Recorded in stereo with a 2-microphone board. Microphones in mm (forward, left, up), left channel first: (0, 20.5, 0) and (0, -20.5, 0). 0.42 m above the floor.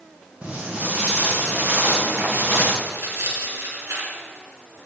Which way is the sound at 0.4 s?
30° right (ahead or behind).